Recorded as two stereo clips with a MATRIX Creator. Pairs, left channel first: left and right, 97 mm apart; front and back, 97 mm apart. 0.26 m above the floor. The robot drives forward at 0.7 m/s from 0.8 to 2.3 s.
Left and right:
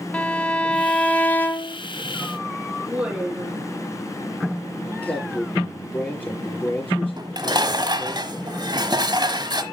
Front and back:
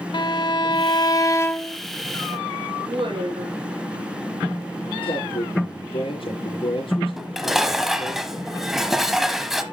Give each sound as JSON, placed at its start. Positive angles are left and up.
{"t": 0.1, "sound": "a violin", "azimuth_deg": 15, "distance_m": 0.9}
{"t": 2.9, "sound": "a woman speaking", "azimuth_deg": -165, "distance_m": 5.5}
{"t": 5.0, "sound": "a man speaking", "azimuth_deg": 15, "distance_m": 5.5}
{"t": 7.2, "sound": "dishes clattering", "azimuth_deg": -95, "distance_m": 1.1}